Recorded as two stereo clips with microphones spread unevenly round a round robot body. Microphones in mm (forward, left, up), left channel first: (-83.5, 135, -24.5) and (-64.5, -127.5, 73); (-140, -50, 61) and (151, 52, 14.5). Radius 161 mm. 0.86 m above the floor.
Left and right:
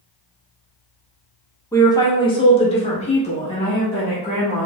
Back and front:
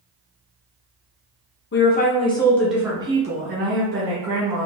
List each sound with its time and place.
1.7 s a woman speaking: 145° left, 0.9 m; by 4.7 s 40° left, 1.4 m